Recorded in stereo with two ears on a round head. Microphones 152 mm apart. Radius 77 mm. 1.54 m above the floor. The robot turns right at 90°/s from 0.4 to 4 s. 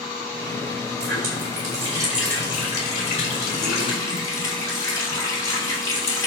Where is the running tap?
110° right, 4.5 m; by 6.3 s 160° left, 4.5 m.